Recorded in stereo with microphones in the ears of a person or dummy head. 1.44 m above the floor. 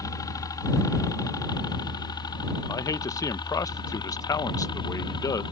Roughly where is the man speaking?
Centre.